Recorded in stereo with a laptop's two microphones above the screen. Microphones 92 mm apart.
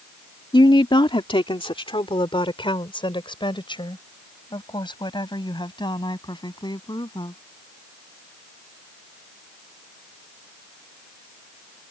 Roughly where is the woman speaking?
Left.